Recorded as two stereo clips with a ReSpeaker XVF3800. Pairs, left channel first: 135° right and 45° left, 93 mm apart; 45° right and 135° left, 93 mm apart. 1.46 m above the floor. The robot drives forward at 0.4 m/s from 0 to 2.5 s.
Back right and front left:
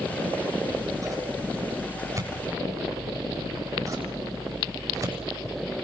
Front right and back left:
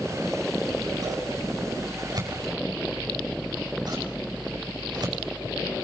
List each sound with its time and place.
0.6 s scissors: 90° left, 9 m; by 5.7 s 95° left, 9 m